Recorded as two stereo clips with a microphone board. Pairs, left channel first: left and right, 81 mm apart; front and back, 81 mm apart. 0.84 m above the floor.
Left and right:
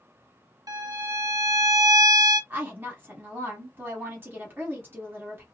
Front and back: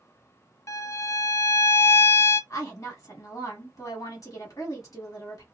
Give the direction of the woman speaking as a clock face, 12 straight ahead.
1 o'clock.